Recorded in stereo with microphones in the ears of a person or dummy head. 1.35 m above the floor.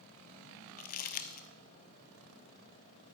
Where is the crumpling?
40° left (ahead or behind), 0.5 m.